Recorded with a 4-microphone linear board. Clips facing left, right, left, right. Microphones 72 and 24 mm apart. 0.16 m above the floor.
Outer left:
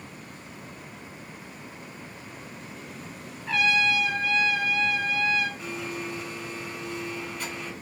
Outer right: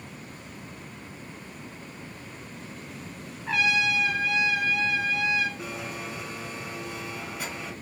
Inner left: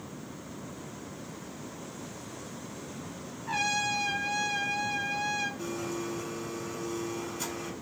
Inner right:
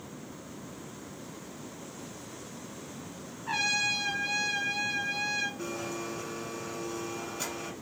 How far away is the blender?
About 1.3 m.